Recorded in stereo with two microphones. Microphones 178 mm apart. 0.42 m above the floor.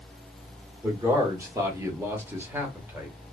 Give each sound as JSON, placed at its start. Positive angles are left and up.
{"t": 0.8, "sound": "a man speaking", "side_deg": -15, "distance_m": 0.9}